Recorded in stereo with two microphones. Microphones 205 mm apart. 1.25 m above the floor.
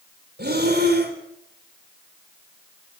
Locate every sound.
0.4 s breathing: 50° right (ahead or behind), 3.5 m